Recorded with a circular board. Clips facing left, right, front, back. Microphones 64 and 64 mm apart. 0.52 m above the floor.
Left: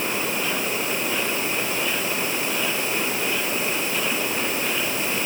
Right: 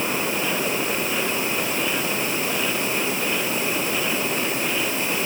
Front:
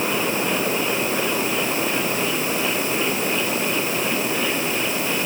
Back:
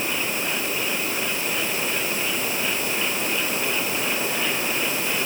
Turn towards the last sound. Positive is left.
No sound to turn to.